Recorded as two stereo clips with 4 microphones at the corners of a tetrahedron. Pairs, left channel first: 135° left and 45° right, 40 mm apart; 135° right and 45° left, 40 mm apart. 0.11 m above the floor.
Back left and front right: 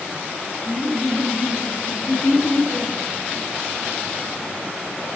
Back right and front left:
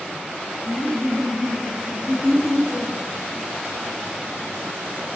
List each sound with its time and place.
0.7 s laughter: 155° left, 4 m; by 2.9 s 125° left, 3.5 m